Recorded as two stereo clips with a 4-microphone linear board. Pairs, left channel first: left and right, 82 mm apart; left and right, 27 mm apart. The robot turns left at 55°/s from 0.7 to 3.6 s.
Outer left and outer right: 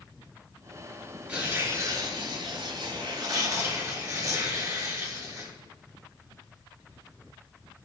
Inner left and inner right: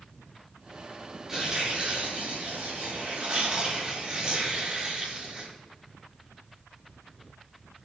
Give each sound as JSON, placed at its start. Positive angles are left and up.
{"t": 1.3, "sound": "tearing paper", "azimuth_deg": -20, "distance_m": 5.0}